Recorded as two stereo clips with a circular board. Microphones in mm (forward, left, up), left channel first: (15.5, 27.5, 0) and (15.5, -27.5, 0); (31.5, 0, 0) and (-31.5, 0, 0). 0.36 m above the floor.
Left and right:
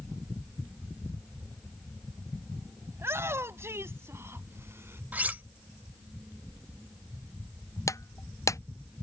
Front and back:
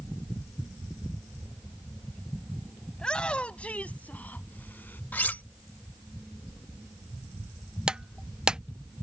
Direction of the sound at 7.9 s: 105° left.